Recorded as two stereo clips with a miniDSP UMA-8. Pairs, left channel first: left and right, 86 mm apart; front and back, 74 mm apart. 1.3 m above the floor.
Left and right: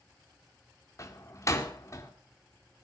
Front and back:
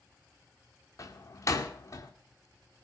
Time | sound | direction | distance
1.0 | a door slam | 40° left | 2 m